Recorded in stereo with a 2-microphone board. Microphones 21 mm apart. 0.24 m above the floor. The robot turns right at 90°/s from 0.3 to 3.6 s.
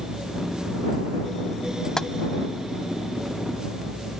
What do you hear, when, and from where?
2.0 s tapping: 30° left (ahead or behind); by 2.1 s 35° left (ahead or behind)